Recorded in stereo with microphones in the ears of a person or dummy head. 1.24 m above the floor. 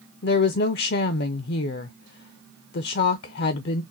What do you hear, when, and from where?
0.2 s a woman speaking: 50° left (ahead or behind), 0.5 m